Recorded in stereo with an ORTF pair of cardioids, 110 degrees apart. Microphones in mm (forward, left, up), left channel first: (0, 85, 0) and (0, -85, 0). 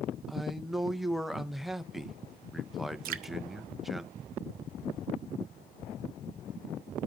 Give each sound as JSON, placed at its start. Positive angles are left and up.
{"t": 0.3, "sound": "a man speaking", "azimuth_deg": 0, "distance_m": 0.5}
{"t": 3.0, "sound": "dripping", "azimuth_deg": -60, "distance_m": 0.5}